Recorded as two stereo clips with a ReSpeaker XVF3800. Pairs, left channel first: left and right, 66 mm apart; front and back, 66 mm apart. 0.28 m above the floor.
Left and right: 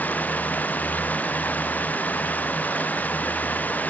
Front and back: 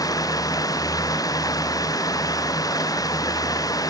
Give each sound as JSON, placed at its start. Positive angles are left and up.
{"t": 0.0, "sound": "running water", "azimuth_deg": 25}